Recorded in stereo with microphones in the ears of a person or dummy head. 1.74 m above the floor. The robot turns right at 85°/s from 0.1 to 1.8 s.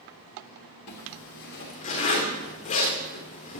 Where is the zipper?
60° left (ahead or behind), 3 m; by 3.6 s 35° left (ahead or behind), 3 m.